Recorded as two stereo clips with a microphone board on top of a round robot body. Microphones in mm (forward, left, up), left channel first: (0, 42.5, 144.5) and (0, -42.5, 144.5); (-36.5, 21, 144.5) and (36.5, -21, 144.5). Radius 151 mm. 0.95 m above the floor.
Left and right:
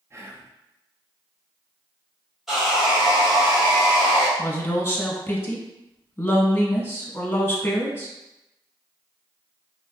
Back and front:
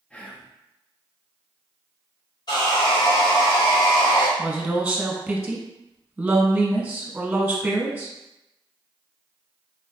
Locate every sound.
0.1 s whispering: 135° right, 0.9 m
2.5 s sawing: 175° right, 1.5 m
4.4 s a woman speaking: 35° left, 1.1 m